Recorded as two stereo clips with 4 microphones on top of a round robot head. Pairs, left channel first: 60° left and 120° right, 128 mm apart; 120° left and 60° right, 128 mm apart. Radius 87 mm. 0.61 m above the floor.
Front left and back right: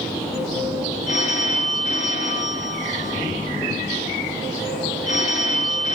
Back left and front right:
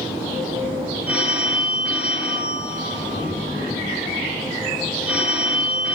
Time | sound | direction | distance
1.1 | a phone ringing | 25° left | 5 m